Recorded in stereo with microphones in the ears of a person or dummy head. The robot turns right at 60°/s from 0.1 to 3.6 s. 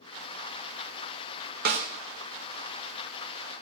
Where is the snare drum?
45° right (ahead or behind), 1.1 m; by 1.9 s 60° right (ahead or behind), 1.1 m.